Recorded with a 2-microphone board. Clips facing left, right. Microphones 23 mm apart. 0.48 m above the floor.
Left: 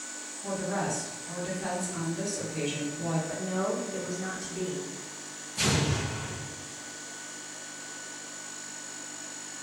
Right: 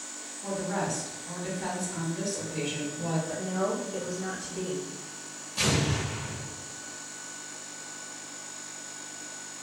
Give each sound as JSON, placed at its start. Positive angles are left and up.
{"t": 0.4, "sound": "a woman speaking", "side_deg": -25, "distance_m": 1.3}
{"t": 3.3, "sound": "a woman speaking", "side_deg": 10, "distance_m": 1.2}
{"t": 5.6, "sound": "an explosion", "side_deg": -40, "distance_m": 1.0}